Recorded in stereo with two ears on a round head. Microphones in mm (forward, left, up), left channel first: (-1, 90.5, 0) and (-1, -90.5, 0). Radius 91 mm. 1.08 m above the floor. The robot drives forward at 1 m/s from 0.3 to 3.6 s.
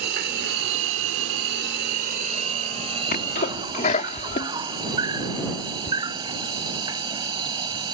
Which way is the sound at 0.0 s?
50° right (ahead or behind).